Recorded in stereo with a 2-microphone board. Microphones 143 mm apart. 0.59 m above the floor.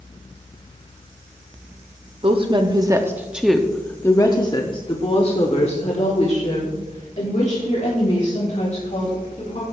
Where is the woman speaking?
40° right (ahead or behind), 1.1 m; by 9.7 s 60° left (ahead or behind), 4 m.